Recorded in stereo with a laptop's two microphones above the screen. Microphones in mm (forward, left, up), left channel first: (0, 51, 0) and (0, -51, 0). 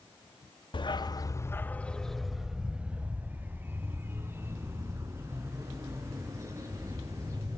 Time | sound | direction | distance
0.7 | a dog barking | 50° left (ahead or behind) | 1.0 m